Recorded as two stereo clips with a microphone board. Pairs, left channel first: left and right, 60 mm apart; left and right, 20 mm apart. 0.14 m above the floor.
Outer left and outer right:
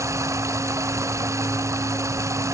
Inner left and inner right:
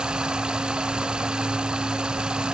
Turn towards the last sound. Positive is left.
turn(degrees=-55)  # may be behind; listen again after turning